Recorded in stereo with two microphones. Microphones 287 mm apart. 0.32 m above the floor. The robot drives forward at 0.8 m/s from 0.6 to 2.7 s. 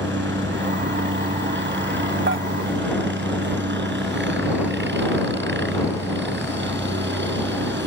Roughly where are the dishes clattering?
Right.